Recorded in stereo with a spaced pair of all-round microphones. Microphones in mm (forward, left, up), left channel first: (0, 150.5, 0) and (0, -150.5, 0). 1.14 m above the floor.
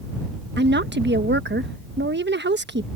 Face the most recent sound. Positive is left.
turn(degrees=-35)  # may be behind; listen again after turning